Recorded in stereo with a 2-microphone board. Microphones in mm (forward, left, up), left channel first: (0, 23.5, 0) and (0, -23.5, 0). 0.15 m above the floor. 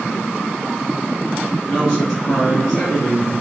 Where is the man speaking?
10° left (ahead or behind), 1.9 m.